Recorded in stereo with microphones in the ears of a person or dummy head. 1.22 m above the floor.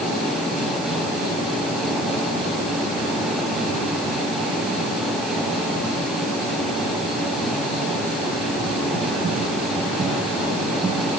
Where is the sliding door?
I don't hear a sliding door.